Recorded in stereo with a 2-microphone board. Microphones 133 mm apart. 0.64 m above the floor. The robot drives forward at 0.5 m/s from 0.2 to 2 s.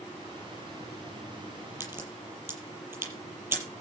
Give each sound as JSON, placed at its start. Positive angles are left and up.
{"t": 1.8, "sound": "a crack", "side_deg": -15, "distance_m": 7.0}